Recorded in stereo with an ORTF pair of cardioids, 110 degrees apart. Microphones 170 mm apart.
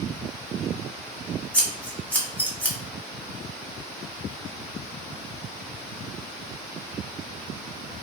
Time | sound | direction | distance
1.5 | scissors | 10° left | 0.8 m